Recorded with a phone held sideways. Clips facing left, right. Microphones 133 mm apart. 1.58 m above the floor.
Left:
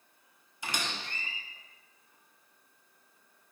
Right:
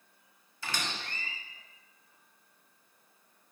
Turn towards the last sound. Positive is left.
turn(degrees=15)  # may be behind; listen again after turning